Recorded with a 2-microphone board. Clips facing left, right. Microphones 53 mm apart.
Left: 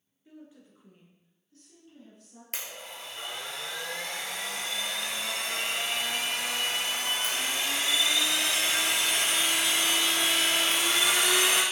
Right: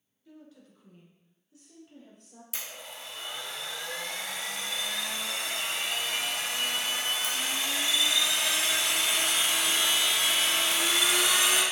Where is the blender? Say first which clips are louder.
Left 1 dB; 45° left (ahead or behind), 1.4 m.